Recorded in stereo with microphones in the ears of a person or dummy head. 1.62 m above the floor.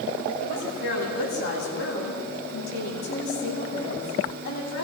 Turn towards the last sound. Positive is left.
turn(degrees=75)  # may be behind; listen again after turning